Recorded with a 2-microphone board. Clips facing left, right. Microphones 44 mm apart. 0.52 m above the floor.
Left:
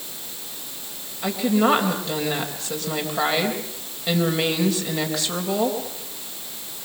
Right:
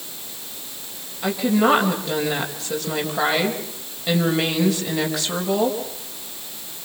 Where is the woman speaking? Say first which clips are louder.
Right 1 dB; centre (ahead or behind), 3 m.